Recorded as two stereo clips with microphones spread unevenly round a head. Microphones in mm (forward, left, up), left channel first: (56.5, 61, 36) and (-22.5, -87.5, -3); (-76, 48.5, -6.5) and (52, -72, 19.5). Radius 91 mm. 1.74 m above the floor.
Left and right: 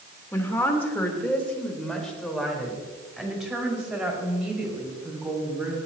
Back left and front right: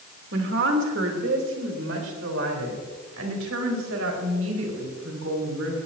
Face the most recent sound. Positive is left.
turn(degrees=-40)